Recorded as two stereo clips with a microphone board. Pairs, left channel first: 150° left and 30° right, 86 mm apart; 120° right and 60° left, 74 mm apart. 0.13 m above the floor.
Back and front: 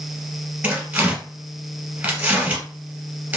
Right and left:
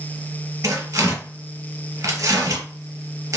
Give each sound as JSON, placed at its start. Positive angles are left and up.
{"t": 0.6, "sound": "tearing paper", "azimuth_deg": 35, "distance_m": 1.3}